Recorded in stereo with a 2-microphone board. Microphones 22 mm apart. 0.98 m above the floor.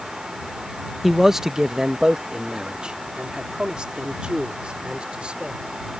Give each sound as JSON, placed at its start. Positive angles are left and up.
{"t": 1.0, "sound": "a man speaking", "side_deg": -5}